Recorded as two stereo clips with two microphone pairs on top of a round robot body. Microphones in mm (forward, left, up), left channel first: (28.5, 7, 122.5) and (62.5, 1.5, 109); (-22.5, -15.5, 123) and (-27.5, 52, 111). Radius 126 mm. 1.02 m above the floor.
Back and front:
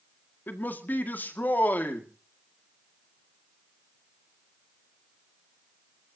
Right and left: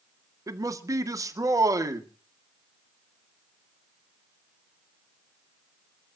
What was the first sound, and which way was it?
A man speaking, 130° left.